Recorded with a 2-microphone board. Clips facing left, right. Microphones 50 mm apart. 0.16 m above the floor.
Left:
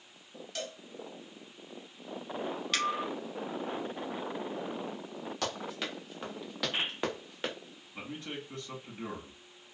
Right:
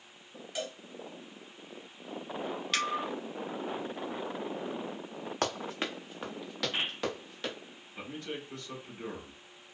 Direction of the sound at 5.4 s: 45° right (ahead or behind).